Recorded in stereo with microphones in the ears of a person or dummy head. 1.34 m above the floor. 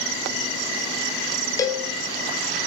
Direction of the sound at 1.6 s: 15° left (ahead or behind).